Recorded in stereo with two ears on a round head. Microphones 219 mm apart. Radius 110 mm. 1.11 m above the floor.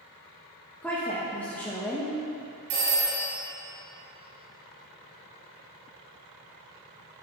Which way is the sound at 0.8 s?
5° left (ahead or behind).